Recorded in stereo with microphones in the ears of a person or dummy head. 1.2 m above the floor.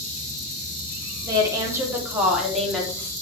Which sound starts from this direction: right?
A woman speaking, at 1.2 s.